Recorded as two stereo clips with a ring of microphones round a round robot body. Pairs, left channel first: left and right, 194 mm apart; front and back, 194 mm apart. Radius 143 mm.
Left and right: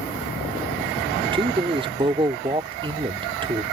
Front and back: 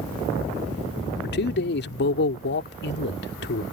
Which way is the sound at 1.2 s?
30° right.